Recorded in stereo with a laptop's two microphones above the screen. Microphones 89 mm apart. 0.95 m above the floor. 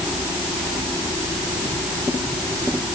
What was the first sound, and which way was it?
Only background noise.